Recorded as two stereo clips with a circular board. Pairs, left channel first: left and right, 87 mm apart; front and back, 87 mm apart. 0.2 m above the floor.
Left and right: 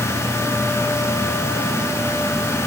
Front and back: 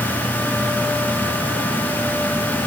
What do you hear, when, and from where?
Only background noise.